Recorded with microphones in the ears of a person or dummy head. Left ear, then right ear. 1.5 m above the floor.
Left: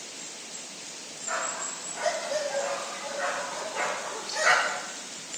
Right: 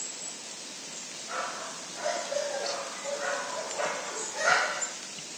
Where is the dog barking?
70° left (ahead or behind), 4 m; by 4.8 s 80° left, 6.5 m.